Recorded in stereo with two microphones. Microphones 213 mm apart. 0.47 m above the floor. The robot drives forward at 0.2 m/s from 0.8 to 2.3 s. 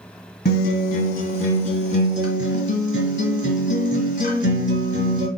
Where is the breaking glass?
I don't hear breaking glass.